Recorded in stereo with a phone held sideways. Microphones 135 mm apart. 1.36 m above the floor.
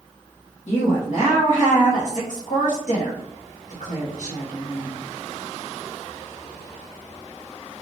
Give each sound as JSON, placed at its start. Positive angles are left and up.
{"t": 0.7, "sound": "a woman speaking", "side_deg": 60, "distance_m": 0.9}